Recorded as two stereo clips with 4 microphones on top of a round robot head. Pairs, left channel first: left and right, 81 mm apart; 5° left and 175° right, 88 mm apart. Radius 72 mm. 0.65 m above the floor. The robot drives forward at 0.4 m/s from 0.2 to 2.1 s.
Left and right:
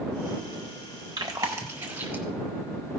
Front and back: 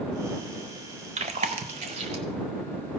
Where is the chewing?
150° right, 0.6 m; by 2.2 s 160° right, 1.0 m.